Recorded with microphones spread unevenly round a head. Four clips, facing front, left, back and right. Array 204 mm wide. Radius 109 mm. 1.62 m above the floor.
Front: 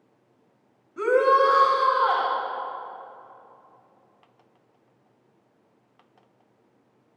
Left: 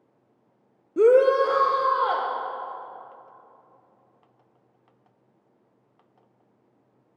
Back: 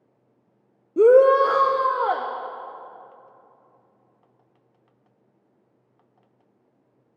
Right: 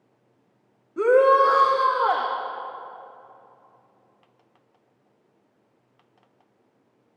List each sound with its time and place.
1.0 s a shout: 165° left, 0.5 m; by 2.3 s 155° right, 1.6 m